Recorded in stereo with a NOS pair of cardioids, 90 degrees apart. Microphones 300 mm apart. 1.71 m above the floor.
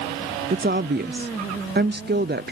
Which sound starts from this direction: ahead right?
A woman speaking, at 0.5 s.